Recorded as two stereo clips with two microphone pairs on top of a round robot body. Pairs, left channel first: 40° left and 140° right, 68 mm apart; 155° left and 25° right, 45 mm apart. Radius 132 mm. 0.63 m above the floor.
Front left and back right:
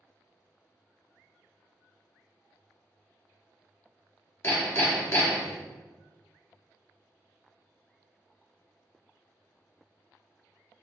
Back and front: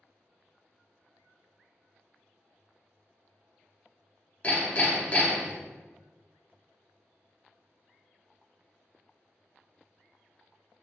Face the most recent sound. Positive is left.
turn(degrees=95)